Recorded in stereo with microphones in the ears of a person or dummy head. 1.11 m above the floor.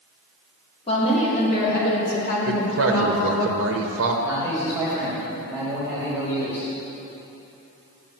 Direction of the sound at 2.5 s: 55° right (ahead or behind).